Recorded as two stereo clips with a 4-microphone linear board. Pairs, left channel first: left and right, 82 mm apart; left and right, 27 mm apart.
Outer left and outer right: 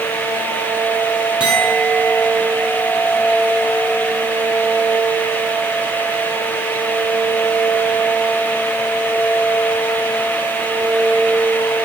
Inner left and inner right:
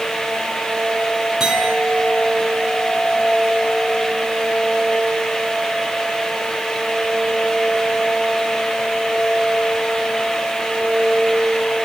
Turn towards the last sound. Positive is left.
turn(degrees=-15)  # may be behind; listen again after turning